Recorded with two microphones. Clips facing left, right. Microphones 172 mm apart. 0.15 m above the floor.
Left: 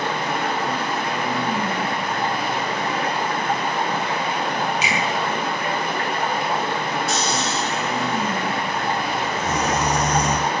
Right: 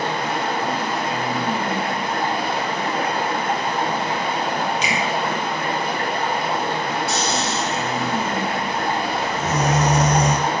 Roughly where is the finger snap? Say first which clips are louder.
Right 1 dB; centre.